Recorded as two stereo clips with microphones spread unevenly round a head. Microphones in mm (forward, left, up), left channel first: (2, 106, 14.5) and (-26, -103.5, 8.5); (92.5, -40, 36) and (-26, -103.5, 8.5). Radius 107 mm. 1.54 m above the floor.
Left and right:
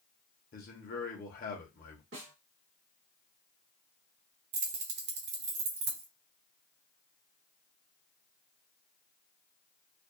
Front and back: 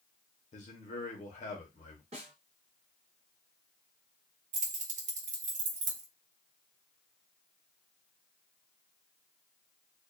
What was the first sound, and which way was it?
A man speaking, 35° left.